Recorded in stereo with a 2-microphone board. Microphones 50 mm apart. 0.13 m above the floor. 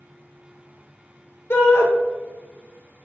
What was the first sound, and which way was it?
A shout, 55° left (ahead or behind).